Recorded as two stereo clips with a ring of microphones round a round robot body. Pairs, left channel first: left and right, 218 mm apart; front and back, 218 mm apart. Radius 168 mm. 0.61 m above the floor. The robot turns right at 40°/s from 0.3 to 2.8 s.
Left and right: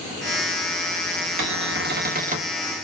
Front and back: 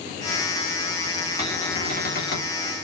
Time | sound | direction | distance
1.4 | a cupboard door | 75° right | 1.3 m